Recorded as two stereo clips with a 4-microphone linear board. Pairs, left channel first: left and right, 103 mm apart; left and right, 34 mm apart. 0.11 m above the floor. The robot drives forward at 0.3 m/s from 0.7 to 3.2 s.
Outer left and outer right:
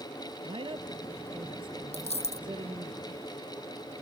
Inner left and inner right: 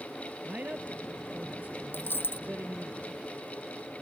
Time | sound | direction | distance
0.5 | a man speaking | 55° right (ahead or behind) | ?
1.9 | a dropped coin | 75° left (ahead or behind) | ?